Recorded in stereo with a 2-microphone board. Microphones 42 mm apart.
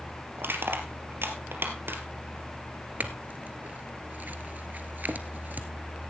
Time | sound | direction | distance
0.4 | crushing | 70° right (ahead or behind) | 2.5 m
3.0 | a clink | 50° right (ahead or behind) | 1.4 m